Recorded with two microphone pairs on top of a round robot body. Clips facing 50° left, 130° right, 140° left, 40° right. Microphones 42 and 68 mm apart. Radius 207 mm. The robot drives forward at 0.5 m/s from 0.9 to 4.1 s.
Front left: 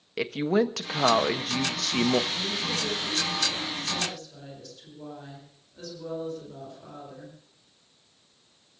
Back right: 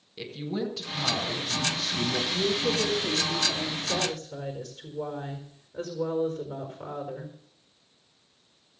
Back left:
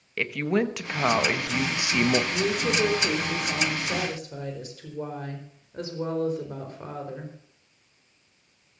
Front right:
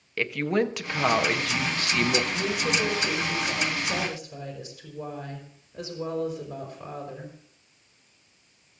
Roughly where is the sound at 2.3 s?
Behind.